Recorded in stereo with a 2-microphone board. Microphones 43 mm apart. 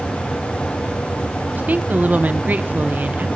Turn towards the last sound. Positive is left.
turn(degrees=-40)  # may be behind; listen again after turning